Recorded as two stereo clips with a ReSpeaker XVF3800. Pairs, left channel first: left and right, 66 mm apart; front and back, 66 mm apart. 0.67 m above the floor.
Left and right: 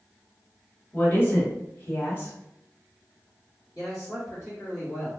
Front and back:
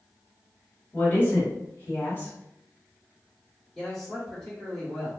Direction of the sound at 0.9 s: 45° left.